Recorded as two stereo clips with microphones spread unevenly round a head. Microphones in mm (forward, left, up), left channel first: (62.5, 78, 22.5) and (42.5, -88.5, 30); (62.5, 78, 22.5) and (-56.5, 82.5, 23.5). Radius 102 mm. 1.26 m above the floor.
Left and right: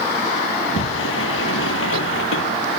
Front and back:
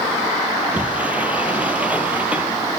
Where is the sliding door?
100° left.